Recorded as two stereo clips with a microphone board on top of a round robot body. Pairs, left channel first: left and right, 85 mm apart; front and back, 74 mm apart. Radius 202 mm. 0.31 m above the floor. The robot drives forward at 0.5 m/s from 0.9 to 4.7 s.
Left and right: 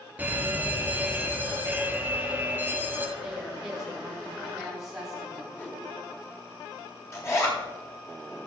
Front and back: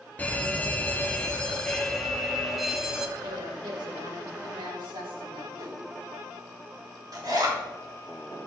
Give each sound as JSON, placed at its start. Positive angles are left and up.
{"t": 0.2, "sound": "a fire alarm", "azimuth_deg": -45, "distance_m": 2.5}
{"t": 3.2, "sound": "a woman speaking", "azimuth_deg": -175, "distance_m": 3.0}
{"t": 5.5, "sound": "a whoosh", "azimuth_deg": 155, "distance_m": 2.5}
{"t": 7.1, "sound": "a zipper", "azimuth_deg": 145, "distance_m": 3.0}